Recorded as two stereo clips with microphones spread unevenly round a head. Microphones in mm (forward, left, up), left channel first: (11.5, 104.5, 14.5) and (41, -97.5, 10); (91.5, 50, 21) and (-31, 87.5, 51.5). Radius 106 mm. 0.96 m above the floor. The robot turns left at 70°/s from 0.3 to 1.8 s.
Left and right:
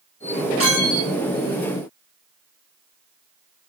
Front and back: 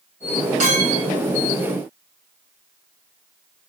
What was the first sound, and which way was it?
A clink, 160° left.